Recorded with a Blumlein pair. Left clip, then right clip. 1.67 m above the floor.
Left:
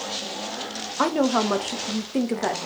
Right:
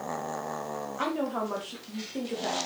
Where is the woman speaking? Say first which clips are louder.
Left 10 dB; 60° left, 1.1 m.